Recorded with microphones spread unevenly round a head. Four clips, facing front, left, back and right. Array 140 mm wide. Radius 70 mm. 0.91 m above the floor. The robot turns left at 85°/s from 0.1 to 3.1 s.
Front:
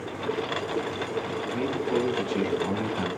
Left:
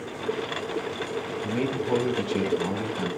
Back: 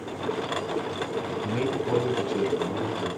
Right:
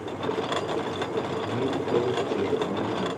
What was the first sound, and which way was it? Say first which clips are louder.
A man speaking: even, back 3 dB; 160° left.